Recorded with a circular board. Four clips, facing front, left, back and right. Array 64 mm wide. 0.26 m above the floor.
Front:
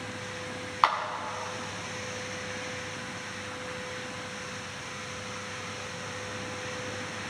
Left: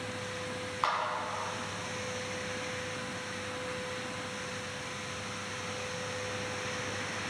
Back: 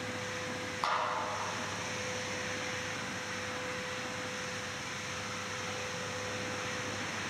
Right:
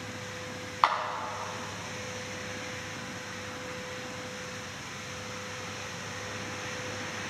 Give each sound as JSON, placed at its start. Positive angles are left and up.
{"t": 0.8, "sound": "a clap", "azimuth_deg": -30, "distance_m": 1.5}